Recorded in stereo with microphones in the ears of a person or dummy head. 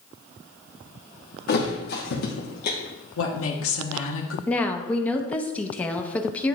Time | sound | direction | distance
1.5 | a thud | 45° left (ahead or behind) | 1.1 m
3.2 | a woman speaking | 85° left | 1.2 m
4.5 | a woman speaking | 15° left (ahead or behind) | 0.8 m